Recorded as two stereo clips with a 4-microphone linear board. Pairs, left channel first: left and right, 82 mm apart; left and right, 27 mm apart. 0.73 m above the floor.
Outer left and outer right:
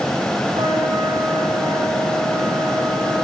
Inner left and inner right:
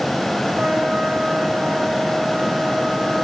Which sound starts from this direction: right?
A trumpet, at 0.5 s.